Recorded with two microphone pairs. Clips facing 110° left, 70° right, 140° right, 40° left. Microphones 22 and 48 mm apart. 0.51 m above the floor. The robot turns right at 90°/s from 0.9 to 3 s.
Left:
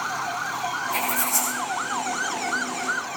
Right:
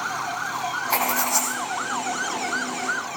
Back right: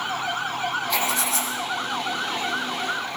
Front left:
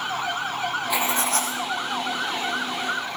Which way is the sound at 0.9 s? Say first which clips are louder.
Right 4 dB, front left 1 dB; 35° right.